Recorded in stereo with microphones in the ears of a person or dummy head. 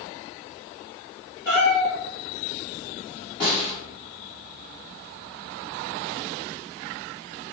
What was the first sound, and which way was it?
A cat meowing, 5° left (ahead or behind).